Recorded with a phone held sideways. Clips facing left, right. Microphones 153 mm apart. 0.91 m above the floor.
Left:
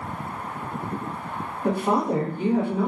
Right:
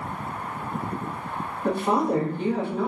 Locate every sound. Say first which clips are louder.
1.6 s a woman speaking: even; 10° left (ahead or behind), 0.9 m